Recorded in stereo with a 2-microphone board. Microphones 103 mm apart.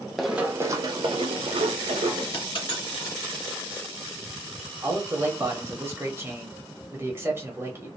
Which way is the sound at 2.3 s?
60° left (ahead or behind).